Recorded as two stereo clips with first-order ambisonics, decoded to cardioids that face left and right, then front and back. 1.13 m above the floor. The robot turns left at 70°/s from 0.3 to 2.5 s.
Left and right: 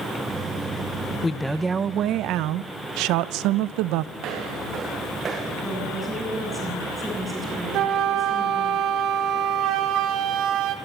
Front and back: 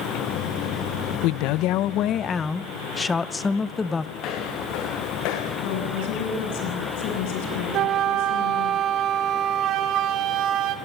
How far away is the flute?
About 2.5 m.